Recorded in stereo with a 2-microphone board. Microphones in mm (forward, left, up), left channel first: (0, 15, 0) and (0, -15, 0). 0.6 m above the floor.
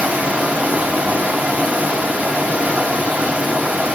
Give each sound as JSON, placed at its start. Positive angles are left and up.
{"t": 0.0, "sound": "running water", "side_deg": -75, "distance_m": 1.1}